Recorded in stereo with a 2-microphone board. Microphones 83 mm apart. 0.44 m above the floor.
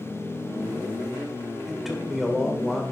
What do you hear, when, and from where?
1.7 s a man speaking: 5° right (ahead or behind), 1.6 m